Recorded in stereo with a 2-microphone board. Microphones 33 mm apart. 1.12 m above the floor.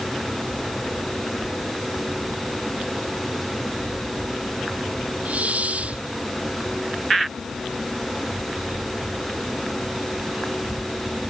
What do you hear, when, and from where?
5.2 s a hiss: 45° right (ahead or behind)